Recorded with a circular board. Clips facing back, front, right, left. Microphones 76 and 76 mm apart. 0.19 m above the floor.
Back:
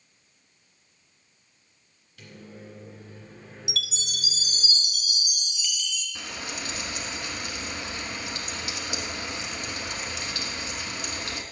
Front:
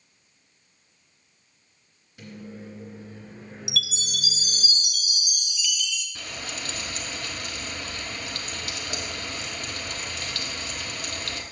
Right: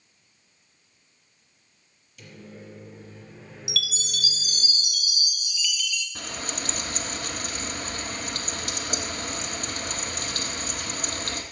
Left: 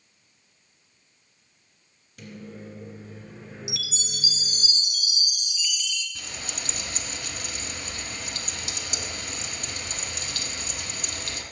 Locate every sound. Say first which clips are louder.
2.2 s a microwave: front 4 dB, left 3 dB; 65° left, 2.5 m
3.7 s a chime: front 3 dB, right 4 dB; 145° left, 1.1 m
6.2 s frying: back 2 dB, right 4 dB; 115° right, 0.9 m